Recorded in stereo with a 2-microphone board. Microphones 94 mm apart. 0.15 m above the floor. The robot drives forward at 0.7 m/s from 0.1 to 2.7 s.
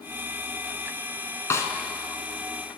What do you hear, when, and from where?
1.5 s a snare drum: 30° left (ahead or behind), 0.7 m; by 1.7 s 25° left (ahead or behind), 0.8 m